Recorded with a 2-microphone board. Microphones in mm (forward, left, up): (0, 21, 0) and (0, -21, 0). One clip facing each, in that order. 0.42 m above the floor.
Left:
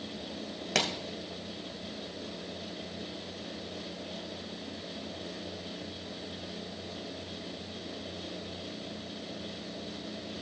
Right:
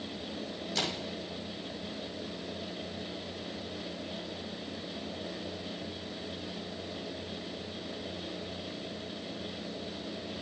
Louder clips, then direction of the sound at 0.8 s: Left 4 dB; 70° left (ahead or behind).